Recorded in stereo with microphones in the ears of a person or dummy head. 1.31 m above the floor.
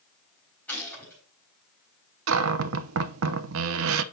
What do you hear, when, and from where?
0.7 s a gunshot: 10° left (ahead or behind), 4 m
2.3 s a cupboard door: 70° right (ahead or behind), 0.6 m